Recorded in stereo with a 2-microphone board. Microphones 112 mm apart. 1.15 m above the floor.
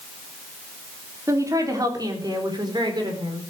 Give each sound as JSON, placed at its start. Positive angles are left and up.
{"t": 1.3, "sound": "a woman speaking", "side_deg": -30, "distance_m": 3.5}